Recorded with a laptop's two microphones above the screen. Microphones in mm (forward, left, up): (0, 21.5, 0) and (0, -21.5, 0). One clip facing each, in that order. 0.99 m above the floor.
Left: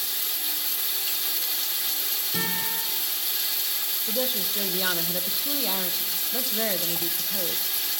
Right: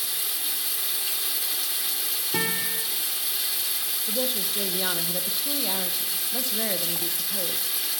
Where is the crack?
No crack in this recording.